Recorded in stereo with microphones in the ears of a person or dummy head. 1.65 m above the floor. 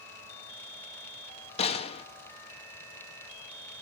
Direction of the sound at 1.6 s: 35° left (ahead or behind).